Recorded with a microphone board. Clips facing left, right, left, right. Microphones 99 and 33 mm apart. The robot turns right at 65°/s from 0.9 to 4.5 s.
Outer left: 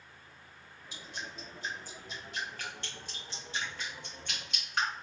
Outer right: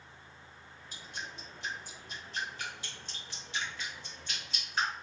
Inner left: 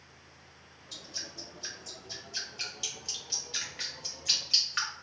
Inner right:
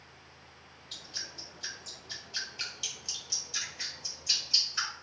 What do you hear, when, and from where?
0.9 s dripping: 45° right (ahead or behind), 1.1 m; by 4.9 s 70° left (ahead or behind), 1.1 m